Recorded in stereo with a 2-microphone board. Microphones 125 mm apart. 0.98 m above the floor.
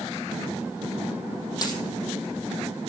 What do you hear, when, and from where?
1.6 s a dropped coin: 30° left (ahead or behind), 4.5 m